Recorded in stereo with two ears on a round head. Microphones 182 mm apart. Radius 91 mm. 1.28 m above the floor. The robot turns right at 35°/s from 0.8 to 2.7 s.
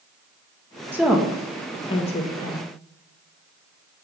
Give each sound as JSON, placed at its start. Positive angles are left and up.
{"t": 0.9, "sound": "a woman speaking", "side_deg": -10, "distance_m": 1.1}